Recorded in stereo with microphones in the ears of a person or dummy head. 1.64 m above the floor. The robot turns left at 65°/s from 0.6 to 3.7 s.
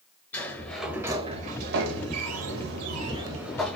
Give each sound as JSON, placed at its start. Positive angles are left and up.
{"t": 0.3, "sound": "a sliding door", "azimuth_deg": 10, "distance_m": 0.8}